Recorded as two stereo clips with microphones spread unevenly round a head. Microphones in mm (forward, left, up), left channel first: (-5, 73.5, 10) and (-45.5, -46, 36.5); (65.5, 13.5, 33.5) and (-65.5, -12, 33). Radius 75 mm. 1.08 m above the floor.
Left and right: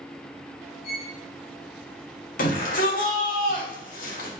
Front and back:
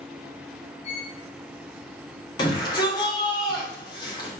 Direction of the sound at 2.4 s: 70° left.